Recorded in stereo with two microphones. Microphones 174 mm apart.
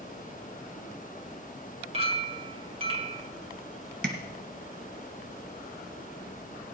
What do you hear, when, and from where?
1.9 s a clink: 35° right (ahead or behind), 2.0 m
4.0 s tapping: 85° right, 2 m